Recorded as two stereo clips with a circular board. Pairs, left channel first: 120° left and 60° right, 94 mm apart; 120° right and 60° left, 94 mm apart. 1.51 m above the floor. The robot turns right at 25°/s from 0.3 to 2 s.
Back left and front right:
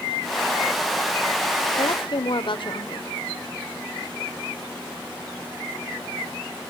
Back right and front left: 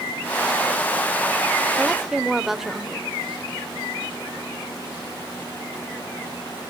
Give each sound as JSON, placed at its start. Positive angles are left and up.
{"t": 1.8, "sound": "a woman speaking", "azimuth_deg": 140, "distance_m": 1.0}